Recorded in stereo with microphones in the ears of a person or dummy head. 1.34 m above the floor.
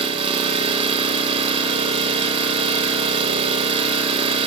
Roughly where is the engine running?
Right.